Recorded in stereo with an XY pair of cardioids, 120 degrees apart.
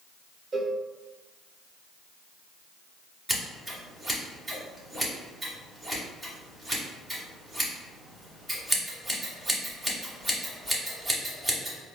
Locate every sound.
0.5 s a cowbell: 40° right, 0.8 m
3.3 s scissors: 5° right, 1.8 m